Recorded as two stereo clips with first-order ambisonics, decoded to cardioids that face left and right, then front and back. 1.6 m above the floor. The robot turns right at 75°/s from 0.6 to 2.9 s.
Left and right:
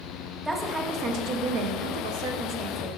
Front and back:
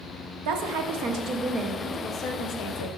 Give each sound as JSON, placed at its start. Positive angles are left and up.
{"t": 0.5, "sound": "a woman speaking", "azimuth_deg": -175, "distance_m": 1.2}